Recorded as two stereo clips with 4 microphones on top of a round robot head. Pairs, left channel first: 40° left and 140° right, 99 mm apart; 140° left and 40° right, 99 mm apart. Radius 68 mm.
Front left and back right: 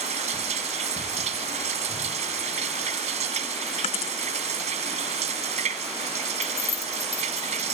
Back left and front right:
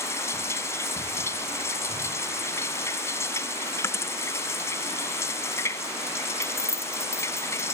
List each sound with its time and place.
0.0 s running water: 155° right
3.8 s a dropped coin: 75° left
6.4 s keys jangling: 85° left